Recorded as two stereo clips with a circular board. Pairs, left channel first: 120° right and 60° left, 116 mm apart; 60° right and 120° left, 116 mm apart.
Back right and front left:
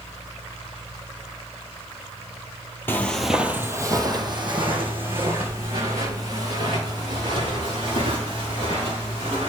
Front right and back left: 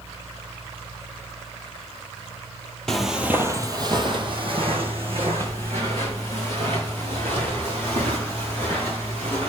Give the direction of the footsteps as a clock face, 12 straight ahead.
4 o'clock.